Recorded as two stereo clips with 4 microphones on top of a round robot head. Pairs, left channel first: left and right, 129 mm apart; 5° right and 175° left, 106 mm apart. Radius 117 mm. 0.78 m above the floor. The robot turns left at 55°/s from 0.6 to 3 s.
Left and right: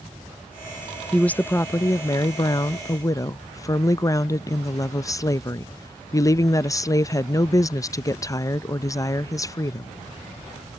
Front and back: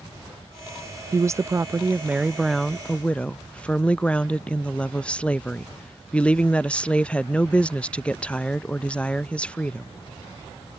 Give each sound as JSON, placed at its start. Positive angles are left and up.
{"t": 1.1, "sound": "a woman speaking", "azimuth_deg": 165}